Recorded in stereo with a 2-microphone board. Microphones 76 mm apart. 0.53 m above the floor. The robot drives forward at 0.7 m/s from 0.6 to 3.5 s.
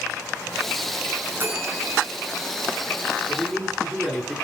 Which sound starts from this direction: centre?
A man speaking, at 3.3 s.